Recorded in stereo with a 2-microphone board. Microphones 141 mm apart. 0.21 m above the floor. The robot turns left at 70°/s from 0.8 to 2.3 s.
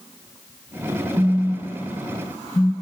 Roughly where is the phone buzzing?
Centre.